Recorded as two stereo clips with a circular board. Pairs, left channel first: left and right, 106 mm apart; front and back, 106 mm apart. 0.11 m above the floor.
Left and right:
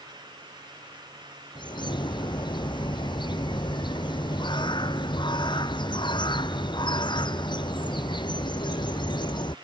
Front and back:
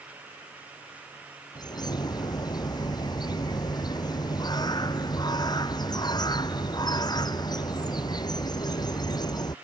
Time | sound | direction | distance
1.6 | a bird | 50° left | ?